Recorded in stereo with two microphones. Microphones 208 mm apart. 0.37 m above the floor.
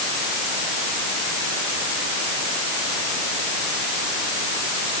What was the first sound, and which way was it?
Only background noise.